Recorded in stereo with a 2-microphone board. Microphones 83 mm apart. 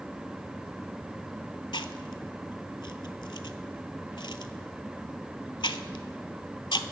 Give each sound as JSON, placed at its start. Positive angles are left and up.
{"t": 1.7, "sound": "chewing", "side_deg": 65, "distance_m": 0.5}